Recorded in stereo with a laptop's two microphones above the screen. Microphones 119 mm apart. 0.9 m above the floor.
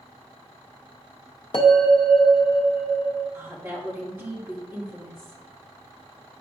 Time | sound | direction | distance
1.5 | a bell | 45° left (ahead or behind) | 1.0 m
3.3 | a woman speaking | 20° right (ahead or behind) | 1.8 m